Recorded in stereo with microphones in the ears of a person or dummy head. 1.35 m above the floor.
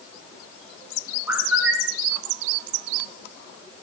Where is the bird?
10° right (ahead or behind), 2.5 m.